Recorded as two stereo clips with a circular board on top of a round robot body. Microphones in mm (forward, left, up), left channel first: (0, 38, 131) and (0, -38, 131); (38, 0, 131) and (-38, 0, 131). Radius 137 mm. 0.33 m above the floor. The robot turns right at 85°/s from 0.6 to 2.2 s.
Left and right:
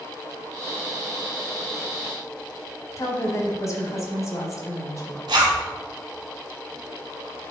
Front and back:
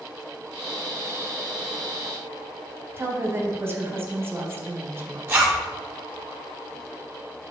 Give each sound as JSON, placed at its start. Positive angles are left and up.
{"t": 3.0, "sound": "a woman speaking", "azimuth_deg": 125, "distance_m": 1.7}
{"t": 5.3, "sound": "a zipper", "azimuth_deg": -115, "distance_m": 2.5}